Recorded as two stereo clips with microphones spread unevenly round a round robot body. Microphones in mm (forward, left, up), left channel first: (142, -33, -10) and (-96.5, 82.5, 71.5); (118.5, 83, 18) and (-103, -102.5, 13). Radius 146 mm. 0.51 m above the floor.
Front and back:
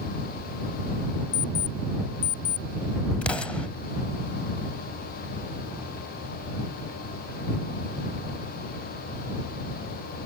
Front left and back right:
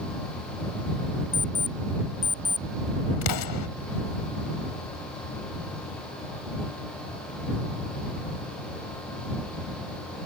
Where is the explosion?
55° left.